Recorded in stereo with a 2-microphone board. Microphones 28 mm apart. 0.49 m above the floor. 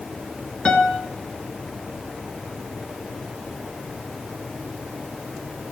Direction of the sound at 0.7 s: 40° left (ahead or behind).